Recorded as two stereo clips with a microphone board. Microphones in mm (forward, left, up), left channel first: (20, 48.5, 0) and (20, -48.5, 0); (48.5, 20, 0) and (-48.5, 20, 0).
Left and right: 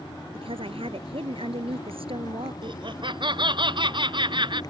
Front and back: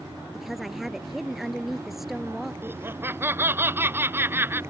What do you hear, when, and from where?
0.3 s a woman speaking: 90° right
2.6 s laughter: 115° right